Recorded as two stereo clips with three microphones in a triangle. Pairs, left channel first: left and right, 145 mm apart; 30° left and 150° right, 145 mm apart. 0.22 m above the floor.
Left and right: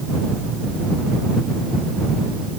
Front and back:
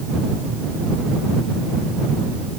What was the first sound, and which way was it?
Only background noise.